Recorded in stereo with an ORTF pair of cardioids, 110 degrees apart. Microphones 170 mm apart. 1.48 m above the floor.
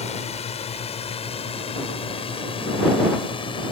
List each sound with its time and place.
0.0 s a drone: 40° left; by 3.7 s 30° left